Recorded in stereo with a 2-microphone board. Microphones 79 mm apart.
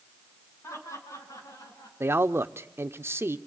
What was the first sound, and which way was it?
Laughter, 40° left (ahead or behind).